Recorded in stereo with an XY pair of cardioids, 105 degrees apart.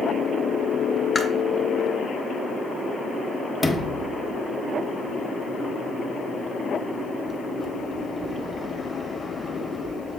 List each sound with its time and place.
1.1 s chewing: 35° left, 0.6 m
3.6 s a sliding door: 10° left, 0.7 m